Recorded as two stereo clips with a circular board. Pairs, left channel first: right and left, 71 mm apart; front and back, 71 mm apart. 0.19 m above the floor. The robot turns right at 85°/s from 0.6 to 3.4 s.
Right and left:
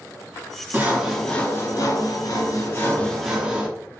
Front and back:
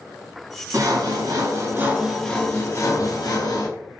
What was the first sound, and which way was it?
Sawing, 150° left.